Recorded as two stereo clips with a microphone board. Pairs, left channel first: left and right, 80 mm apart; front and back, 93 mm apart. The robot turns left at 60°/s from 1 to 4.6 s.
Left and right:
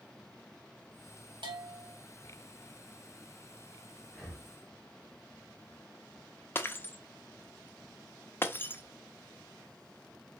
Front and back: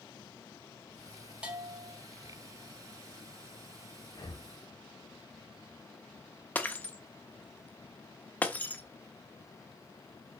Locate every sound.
1.4 s a bell: 100° right, 1.0 m; by 1.9 s 135° right, 1.0 m
4.1 s breathing: 15° left, 1.2 m; by 4.5 s 10° right, 1.2 m
6.5 s breaking glass: 55° left, 0.6 m